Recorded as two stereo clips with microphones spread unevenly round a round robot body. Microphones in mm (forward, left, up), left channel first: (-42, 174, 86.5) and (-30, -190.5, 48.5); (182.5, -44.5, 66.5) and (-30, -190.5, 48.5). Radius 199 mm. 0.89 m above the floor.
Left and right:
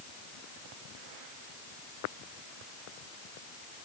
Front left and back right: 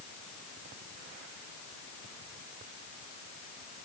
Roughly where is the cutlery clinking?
No cutlery clinking in this recording.